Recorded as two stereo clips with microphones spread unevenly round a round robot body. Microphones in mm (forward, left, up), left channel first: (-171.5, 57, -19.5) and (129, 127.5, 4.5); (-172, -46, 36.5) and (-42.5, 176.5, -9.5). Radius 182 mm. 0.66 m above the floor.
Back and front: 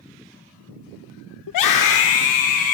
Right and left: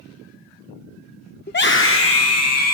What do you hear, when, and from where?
1.5 s a scream: straight behind, 1.2 m; by 2.8 s 140° right, 2 m